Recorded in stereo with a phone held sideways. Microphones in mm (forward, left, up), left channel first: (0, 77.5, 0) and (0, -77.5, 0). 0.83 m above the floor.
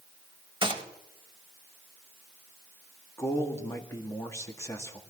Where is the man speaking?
20° left (ahead or behind), 1.7 m.